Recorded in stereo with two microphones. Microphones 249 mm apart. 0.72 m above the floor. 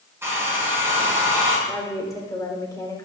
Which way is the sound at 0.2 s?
10° right (ahead or behind).